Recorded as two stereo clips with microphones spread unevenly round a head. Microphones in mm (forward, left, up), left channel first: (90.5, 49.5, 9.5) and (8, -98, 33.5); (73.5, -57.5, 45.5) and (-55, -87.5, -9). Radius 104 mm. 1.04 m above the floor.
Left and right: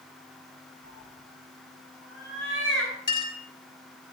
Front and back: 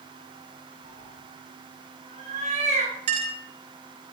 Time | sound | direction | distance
0.8 | a cat meowing | 140° right | 7.5 m
3.1 | a clink | 135° left | 3 m